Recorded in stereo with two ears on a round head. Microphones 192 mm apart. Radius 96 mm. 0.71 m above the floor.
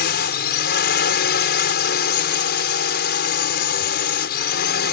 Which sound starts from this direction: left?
A drone, at 0.0 s.